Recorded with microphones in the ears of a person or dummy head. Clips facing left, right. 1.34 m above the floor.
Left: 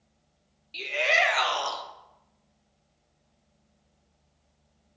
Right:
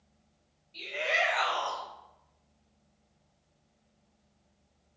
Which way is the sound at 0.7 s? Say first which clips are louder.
Left 5 dB; 80° left.